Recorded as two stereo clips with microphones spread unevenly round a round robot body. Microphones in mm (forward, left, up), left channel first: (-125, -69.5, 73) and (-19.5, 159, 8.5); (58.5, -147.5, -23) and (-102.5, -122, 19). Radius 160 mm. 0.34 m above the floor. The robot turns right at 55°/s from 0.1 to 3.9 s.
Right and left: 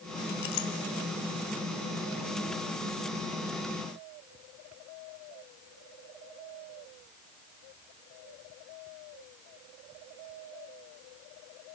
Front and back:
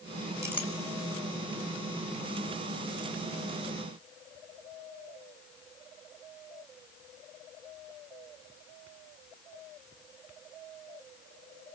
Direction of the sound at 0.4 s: 115° right.